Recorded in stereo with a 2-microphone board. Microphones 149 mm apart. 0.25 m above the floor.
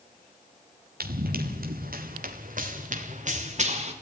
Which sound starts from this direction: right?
Running footsteps, at 1.0 s.